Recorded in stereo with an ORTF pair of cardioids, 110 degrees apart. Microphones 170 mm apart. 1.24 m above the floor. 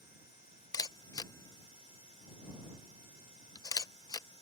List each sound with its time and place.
0.7 s a camera shutter: 20° left